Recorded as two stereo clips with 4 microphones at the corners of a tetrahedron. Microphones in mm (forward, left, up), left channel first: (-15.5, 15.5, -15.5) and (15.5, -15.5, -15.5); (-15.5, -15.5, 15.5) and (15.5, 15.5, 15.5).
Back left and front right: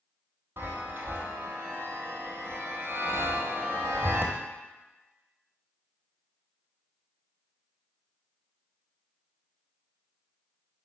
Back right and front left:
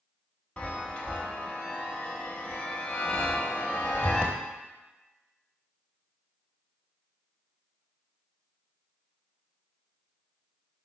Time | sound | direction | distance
0.6 | a chime | 75° right | 1.0 m